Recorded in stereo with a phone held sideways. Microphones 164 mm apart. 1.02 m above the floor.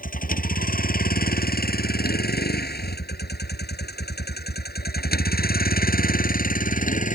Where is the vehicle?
60° left (ahead or behind); by 7.2 s 55° left (ahead or behind).